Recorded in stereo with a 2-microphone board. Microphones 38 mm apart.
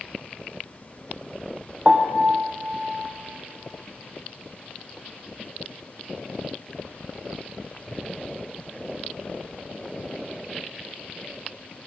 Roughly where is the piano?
Centre.